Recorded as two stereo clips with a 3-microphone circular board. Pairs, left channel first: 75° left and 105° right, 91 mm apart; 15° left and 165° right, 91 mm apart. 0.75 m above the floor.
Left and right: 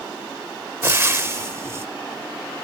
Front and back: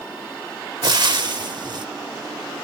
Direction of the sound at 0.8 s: 155° right.